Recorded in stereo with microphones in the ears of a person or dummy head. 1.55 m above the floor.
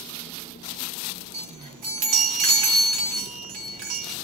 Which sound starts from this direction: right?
A chime, at 1.3 s.